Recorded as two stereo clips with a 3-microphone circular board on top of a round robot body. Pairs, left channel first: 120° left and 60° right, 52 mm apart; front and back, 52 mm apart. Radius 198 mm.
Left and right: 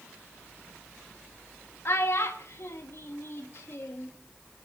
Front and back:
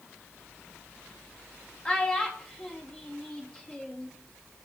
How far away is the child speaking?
About 1.9 m.